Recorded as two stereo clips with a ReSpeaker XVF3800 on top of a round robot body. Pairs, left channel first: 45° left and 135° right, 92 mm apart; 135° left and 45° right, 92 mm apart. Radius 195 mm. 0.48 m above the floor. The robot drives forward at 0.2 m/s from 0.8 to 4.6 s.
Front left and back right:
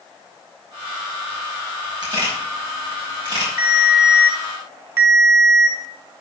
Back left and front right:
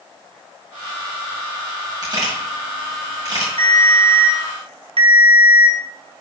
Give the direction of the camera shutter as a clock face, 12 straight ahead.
3 o'clock.